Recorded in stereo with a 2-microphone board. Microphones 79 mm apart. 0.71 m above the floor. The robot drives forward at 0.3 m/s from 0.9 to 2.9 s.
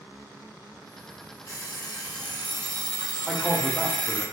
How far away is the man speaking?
About 0.5 m.